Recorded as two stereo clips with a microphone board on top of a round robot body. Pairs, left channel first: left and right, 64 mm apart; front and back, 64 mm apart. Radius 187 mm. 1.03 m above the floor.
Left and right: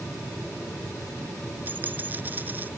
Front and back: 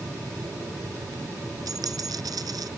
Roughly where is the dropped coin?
Behind right.